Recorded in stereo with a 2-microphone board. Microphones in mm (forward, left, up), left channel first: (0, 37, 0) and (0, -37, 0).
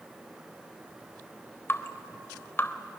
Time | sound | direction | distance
1.7 | dripping | 30° left (ahead or behind) | 0.7 m